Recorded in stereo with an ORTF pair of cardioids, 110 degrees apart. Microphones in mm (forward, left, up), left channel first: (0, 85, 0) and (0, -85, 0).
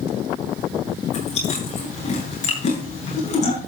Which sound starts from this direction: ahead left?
Chewing, at 1.1 s.